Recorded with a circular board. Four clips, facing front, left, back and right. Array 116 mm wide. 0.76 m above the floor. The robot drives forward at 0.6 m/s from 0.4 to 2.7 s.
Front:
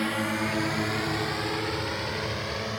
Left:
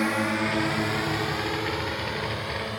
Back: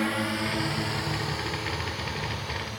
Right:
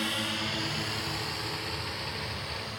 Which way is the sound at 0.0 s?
95° left.